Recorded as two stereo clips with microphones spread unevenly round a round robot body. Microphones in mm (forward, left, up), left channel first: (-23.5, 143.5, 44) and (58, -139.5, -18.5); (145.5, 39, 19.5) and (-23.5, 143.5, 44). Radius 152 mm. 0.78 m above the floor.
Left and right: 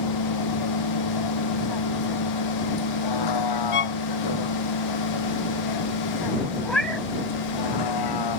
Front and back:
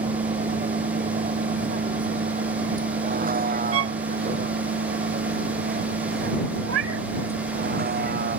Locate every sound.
0.0 s a vehicle: 95° left; by 8.4 s 110° left
3.7 s a violin: 160° left
6.7 s a cat meowing: 170° right